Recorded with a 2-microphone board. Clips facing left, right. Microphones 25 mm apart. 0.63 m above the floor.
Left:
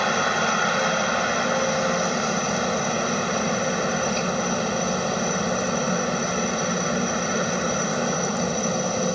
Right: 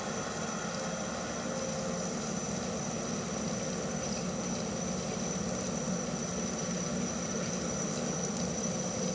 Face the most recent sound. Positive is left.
turn(degrees=55)  # may be behind; listen again after turning